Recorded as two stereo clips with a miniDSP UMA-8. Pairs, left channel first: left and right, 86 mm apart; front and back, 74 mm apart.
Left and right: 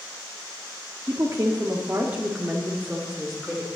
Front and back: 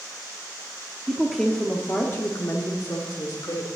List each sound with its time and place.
1.1 s a woman speaking: 105° right, 0.9 m; by 3.7 s straight ahead, 1.7 m